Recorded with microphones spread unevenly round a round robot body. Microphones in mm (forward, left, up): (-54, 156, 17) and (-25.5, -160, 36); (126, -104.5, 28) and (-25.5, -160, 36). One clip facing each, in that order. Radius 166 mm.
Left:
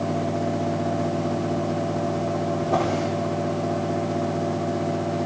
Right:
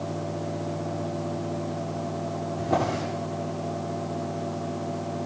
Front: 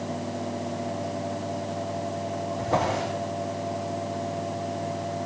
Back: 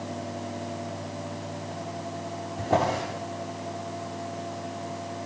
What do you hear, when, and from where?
2.6 s a drawer: 135° right, 9 m